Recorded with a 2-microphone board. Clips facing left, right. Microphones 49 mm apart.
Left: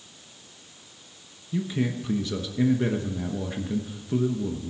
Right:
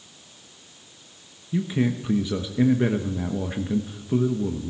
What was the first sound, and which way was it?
A man speaking, 15° right (ahead or behind).